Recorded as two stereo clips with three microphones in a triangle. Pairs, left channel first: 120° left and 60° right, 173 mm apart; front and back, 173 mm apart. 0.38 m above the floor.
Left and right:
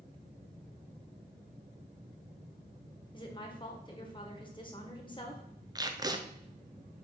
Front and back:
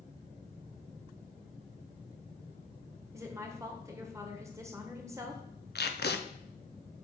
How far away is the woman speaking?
About 1.2 m.